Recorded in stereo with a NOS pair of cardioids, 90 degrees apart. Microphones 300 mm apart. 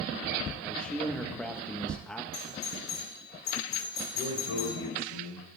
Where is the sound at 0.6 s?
5° left, 1.3 m.